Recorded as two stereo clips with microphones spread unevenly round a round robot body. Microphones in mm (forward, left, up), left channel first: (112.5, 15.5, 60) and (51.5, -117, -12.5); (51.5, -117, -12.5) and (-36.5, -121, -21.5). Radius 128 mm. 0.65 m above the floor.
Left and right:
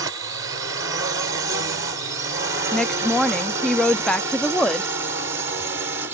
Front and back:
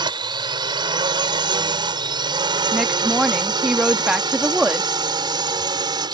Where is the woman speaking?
120° right.